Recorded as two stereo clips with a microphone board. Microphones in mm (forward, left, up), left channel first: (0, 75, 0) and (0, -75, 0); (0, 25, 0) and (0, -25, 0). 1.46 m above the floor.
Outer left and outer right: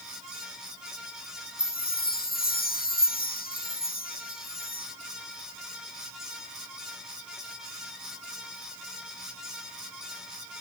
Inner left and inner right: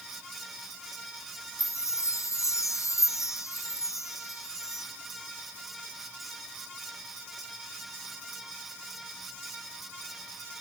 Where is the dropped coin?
I don't hear a dropped coin.